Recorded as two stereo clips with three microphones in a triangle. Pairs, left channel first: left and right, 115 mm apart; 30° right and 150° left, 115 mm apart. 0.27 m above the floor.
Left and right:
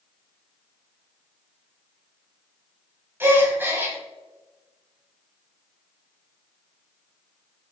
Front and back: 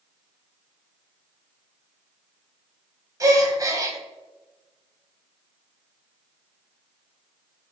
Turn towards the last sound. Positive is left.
turn(degrees=-155)